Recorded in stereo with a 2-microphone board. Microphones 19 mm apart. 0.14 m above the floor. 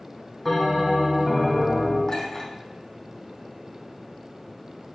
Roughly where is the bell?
Centre.